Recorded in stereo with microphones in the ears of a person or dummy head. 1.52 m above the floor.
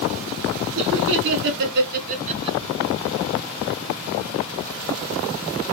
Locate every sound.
0.8 s laughter: 65° right (ahead or behind), 2 m; by 2.6 s 15° right (ahead or behind), 1.0 m